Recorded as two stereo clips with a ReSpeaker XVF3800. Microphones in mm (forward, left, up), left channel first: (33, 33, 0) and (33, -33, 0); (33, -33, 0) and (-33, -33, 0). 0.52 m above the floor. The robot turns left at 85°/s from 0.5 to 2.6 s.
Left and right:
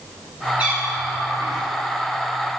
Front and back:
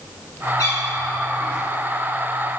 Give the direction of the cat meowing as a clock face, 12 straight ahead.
1 o'clock.